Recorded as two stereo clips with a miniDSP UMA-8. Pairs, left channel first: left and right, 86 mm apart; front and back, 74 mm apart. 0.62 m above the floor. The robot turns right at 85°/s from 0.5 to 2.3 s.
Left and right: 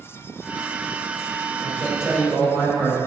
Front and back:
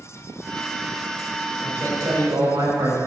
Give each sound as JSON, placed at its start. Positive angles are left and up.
{"t": 1.6, "sound": "a man speaking", "azimuth_deg": 110, "distance_m": 2.0}